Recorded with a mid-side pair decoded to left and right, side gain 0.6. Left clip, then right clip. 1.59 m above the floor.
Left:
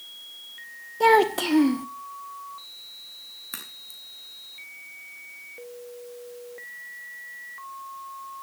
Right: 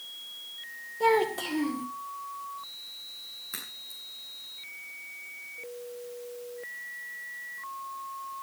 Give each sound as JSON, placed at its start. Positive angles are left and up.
{"t": 1.0, "sound": "a child speaking", "azimuth_deg": 45, "distance_m": 1.2}
{"t": 3.5, "sound": "a crack", "azimuth_deg": 25, "distance_m": 6.5}